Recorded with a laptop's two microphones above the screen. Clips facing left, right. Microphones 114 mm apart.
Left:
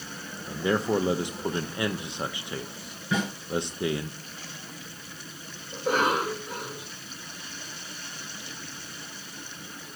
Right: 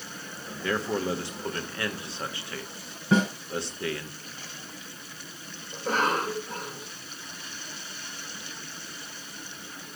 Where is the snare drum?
30° right (ahead or behind), 5.5 m.